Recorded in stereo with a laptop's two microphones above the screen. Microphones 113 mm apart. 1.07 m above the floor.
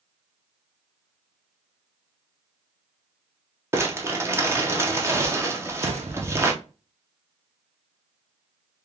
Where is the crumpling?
25° right (ahead or behind), 0.7 m.